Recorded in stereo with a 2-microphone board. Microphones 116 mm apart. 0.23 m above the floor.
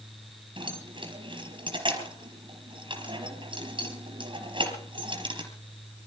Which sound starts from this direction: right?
Keys jangling, at 0.6 s.